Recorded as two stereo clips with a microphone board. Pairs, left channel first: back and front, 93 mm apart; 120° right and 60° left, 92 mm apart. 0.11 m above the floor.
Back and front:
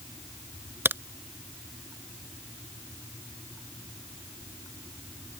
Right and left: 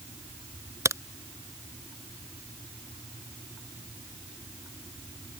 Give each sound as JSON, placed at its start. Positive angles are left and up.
{"t": 0.8, "sound": "a crack", "azimuth_deg": 45}